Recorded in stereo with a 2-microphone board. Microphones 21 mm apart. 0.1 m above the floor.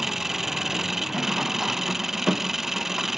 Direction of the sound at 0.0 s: 10° right (ahead or behind).